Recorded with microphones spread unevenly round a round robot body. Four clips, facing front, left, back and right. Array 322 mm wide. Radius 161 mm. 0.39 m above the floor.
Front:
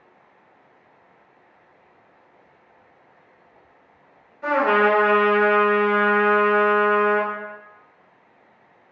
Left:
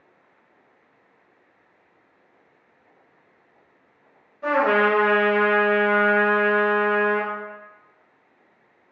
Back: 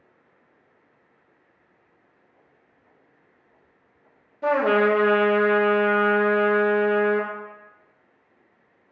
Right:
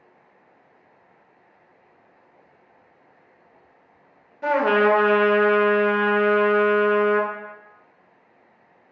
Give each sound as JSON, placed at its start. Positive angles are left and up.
{"t": 4.4, "sound": "a trumpet", "azimuth_deg": -155, "distance_m": 0.6}